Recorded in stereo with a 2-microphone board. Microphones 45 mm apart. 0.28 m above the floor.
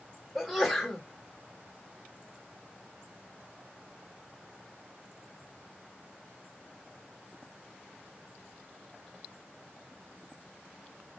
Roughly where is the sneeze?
Centre.